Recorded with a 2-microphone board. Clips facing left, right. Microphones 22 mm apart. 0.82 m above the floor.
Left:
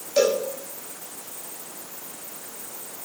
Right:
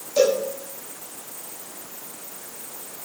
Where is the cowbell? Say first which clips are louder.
Right 1 dB; 20° left (ahead or behind), 6 m.